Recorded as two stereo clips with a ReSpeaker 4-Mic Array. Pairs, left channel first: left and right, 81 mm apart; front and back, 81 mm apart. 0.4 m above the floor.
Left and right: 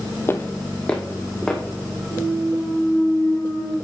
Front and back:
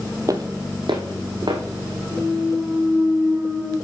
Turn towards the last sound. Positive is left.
turn(degrees=110)